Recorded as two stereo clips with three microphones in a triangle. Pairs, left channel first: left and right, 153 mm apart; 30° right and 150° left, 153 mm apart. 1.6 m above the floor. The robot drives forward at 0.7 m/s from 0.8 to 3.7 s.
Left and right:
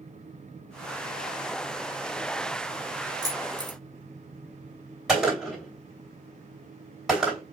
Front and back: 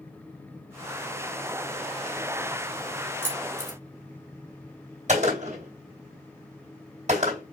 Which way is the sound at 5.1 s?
175° right.